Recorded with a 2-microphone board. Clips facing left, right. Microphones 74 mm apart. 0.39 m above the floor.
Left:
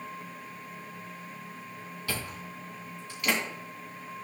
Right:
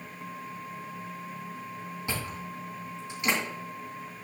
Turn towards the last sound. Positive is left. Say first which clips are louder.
# right 1 dB
turn(degrees=-20)  # may be behind; listen again after turning